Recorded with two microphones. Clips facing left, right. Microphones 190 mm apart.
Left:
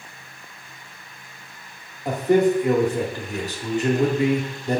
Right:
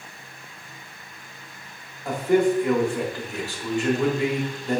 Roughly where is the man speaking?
Centre.